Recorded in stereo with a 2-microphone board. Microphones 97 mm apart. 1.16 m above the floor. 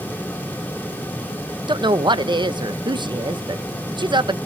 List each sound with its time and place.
1.7 s a woman speaking: 50° right (ahead or behind), 0.7 m